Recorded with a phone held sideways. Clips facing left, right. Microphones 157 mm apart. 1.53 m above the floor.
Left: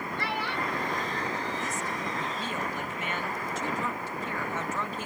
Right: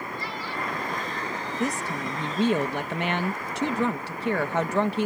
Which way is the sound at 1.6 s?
70° right (ahead or behind).